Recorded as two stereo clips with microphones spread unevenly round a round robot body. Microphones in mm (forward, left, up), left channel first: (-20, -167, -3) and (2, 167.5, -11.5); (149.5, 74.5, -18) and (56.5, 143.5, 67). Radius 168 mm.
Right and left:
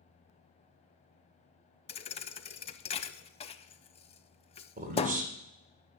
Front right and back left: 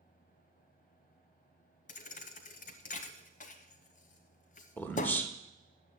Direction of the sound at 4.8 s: 20° left.